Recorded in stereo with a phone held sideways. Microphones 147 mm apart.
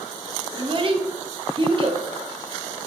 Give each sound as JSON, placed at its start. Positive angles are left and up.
{"t": 0.6, "sound": "a child speaking", "side_deg": -40, "distance_m": 0.9}